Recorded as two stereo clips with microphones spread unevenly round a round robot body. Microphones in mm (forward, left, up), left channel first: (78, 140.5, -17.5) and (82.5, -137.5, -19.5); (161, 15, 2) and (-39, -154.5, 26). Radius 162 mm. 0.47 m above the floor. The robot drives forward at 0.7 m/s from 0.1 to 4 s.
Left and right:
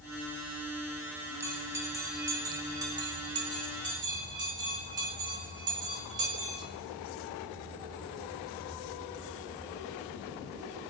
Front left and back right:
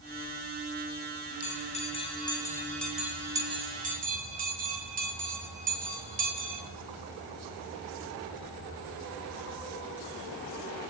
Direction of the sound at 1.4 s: 10° right.